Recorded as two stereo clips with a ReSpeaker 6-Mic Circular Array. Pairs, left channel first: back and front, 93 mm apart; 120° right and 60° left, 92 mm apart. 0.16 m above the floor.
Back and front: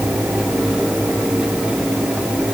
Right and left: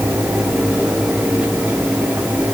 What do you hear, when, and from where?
Only background noise.